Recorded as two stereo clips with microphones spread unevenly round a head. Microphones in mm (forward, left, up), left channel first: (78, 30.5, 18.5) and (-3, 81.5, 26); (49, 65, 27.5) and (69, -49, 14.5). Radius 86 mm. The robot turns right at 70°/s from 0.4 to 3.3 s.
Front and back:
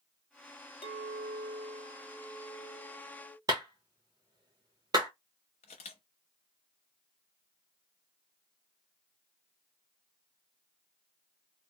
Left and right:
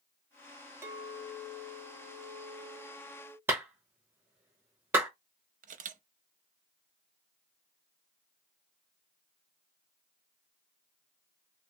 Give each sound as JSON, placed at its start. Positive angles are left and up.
{"t": 0.8, "sound": "a clink", "azimuth_deg": -10, "distance_m": 1.4}
{"t": 3.5, "sound": "a clap", "azimuth_deg": -150, "distance_m": 0.7}
{"t": 5.6, "sound": "a camera shutter", "azimuth_deg": -75, "distance_m": 0.5}